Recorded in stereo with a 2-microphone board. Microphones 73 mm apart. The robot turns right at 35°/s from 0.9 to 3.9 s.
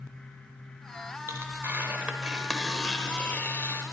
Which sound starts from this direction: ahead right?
Tearing paper, at 1.3 s.